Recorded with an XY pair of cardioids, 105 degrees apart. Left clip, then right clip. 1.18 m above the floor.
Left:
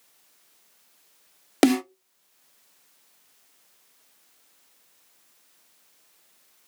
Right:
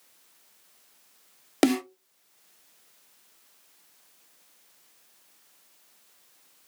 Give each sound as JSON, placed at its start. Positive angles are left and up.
{"t": 1.6, "sound": "a snare drum", "azimuth_deg": 25, "distance_m": 0.5}